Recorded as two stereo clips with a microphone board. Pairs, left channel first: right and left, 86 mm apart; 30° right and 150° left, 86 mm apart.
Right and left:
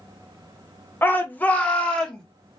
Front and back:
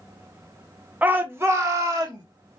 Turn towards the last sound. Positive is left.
turn(degrees=-170)